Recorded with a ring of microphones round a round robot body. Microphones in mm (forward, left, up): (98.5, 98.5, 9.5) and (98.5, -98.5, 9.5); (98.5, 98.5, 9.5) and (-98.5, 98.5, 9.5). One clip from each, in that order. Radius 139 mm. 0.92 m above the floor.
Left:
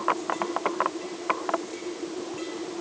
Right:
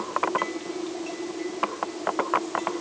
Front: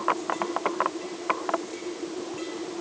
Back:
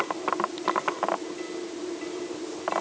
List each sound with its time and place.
Only background noise.